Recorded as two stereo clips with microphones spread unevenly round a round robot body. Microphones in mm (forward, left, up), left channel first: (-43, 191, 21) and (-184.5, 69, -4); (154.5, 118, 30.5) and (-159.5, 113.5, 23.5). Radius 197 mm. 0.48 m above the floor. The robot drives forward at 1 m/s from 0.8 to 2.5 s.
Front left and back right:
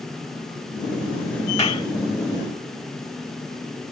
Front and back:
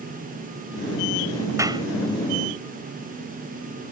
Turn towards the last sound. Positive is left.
turn(degrees=120)